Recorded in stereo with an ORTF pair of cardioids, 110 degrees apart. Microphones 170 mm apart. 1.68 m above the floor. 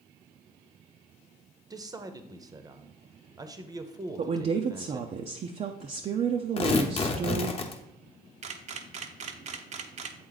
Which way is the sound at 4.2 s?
40° right.